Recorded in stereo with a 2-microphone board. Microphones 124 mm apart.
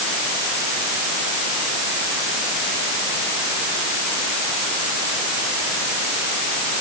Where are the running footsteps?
No running footsteps in this recording.